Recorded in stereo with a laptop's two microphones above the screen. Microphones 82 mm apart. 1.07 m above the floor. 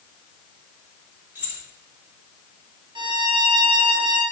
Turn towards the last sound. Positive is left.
turn(degrees=-70)  # may be behind; listen again after turning